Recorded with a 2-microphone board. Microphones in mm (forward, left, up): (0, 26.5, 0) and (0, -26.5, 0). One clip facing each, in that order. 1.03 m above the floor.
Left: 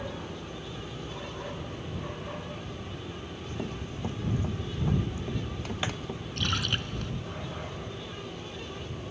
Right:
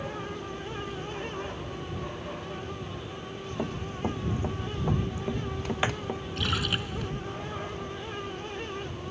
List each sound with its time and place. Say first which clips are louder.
3.6 s running footsteps: right 5 dB; 30° right (ahead or behind); by 6.2 s 25° right (ahead or behind)
6.4 s a splash: even; 5° right (ahead or behind)